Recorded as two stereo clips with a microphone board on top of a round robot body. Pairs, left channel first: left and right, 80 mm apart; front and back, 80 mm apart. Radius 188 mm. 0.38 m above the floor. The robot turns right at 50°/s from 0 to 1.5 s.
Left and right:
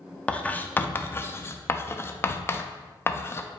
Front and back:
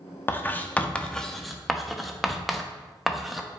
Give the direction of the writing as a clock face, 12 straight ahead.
11 o'clock.